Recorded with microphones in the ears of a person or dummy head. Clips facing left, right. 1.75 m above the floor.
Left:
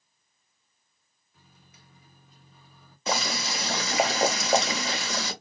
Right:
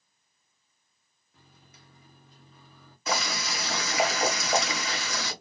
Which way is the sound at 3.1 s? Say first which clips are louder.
Left 2 dB; 35° left (ahead or behind).